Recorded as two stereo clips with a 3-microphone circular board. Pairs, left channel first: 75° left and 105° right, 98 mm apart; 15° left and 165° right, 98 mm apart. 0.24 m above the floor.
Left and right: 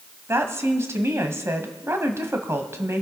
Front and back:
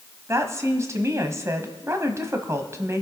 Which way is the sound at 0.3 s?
140° right.